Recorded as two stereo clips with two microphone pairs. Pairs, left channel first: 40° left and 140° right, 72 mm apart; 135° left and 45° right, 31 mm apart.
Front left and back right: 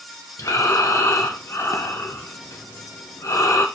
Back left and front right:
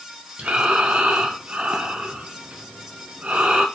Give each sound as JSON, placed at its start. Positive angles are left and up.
{"t": 0.4, "sound": "breathing", "azimuth_deg": -5, "distance_m": 0.7}